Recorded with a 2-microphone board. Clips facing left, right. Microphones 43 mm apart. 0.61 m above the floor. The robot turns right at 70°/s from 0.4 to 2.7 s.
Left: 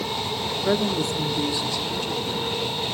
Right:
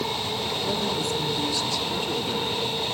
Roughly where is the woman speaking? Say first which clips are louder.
Left 6 dB; left.